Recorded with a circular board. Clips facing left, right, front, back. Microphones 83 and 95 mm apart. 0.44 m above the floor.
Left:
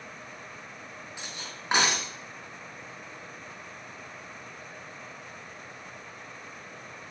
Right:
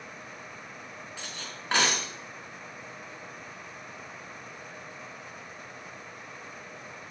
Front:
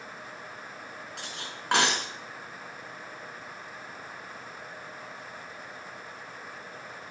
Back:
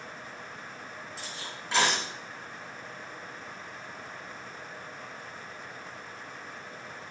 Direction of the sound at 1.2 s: 20° left.